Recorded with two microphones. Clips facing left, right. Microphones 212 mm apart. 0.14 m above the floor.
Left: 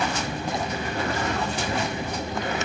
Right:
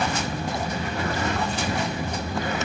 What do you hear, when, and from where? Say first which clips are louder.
0.0 s an insect: right 1 dB; 25° right (ahead or behind), 1.9 m